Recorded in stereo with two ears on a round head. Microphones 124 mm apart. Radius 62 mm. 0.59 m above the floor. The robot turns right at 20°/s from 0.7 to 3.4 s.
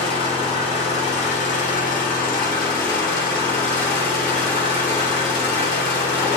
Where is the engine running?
45° left, 1.7 m; by 6.4 s 100° left, 1.7 m.